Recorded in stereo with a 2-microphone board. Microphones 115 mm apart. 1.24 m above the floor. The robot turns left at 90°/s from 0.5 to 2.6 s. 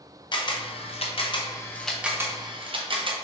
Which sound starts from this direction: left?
A camera shutter, at 0.3 s.